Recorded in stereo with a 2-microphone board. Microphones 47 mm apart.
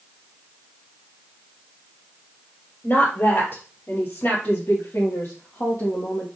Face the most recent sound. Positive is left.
turn(degrees=60)  # may be behind; listen again after turning